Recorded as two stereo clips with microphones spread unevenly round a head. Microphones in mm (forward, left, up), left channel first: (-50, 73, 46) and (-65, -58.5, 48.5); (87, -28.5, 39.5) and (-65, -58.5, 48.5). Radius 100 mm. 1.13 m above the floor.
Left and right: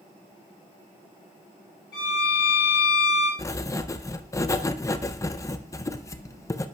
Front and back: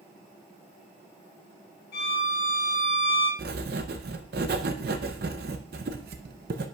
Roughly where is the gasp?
No gasp in this recording.